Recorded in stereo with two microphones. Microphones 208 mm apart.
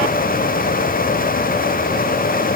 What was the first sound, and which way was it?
Only background noise.